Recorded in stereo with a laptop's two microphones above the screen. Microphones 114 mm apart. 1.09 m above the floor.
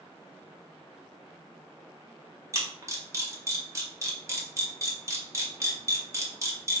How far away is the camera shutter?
About 0.8 m.